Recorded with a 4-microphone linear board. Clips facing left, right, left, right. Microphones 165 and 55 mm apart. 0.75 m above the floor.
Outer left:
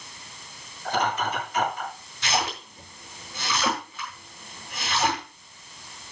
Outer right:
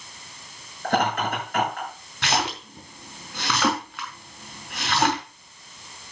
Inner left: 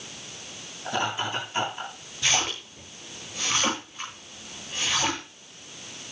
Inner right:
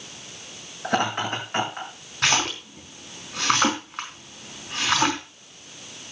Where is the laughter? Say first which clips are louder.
Outer right 3 dB, inner right 4 dB; 75° right (ahead or behind), 8.5 m.